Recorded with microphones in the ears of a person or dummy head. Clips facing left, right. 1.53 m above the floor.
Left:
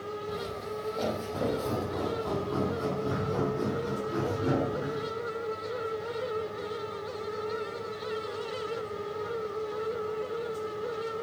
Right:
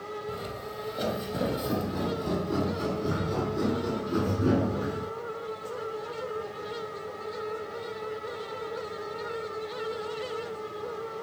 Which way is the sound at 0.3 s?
10° right (ahead or behind).